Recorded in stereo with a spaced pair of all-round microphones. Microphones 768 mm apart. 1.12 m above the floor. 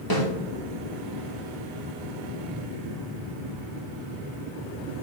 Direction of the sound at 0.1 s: 25° left (ahead or behind).